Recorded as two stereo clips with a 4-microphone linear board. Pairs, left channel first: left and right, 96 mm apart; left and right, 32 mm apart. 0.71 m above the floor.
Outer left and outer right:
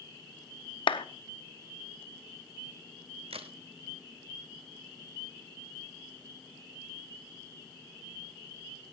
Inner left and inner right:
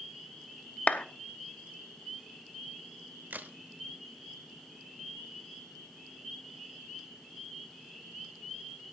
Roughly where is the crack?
Right.